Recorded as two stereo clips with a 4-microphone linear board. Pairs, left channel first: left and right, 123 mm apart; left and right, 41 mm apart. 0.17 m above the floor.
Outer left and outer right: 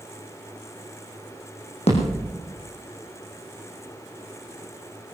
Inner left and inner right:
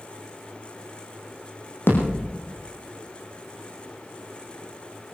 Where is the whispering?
No whispering in this recording.